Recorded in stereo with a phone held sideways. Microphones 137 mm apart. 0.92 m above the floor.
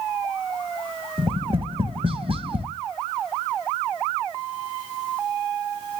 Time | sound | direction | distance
1.2 | tapping | 40° right (ahead or behind) | 1.1 m